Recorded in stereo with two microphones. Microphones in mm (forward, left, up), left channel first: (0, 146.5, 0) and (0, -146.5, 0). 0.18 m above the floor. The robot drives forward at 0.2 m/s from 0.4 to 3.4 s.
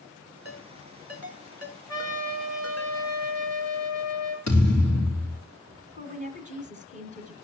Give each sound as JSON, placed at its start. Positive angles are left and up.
{"t": 0.5, "sound": "a ringtone", "side_deg": 50, "distance_m": 1.5}
{"t": 1.9, "sound": "a trumpet", "side_deg": 60, "distance_m": 3.0}
{"t": 4.5, "sound": "a thud", "side_deg": 65, "distance_m": 4.0}
{"t": 6.0, "sound": "a woman speaking", "side_deg": 35, "distance_m": 2.0}